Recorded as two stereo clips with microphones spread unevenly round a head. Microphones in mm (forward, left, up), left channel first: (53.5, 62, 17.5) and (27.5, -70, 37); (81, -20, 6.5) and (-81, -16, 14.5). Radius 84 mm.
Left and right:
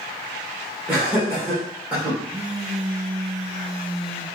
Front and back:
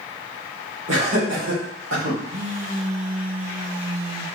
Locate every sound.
0.9 s laughter: 175° left, 2 m
2.3 s a phone buzzing: 140° right, 2.5 m